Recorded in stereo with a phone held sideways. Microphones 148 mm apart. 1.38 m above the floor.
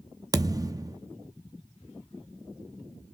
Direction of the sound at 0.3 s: 25° right (ahead or behind).